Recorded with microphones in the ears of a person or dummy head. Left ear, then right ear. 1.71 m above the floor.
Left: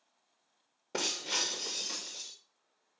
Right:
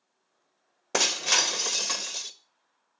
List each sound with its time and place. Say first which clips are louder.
0.9 s breaking glass: right 9 dB; 35° right (ahead or behind), 1.5 m